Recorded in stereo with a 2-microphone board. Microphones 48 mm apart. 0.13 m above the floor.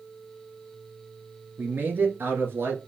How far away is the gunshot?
No gunshot in this recording.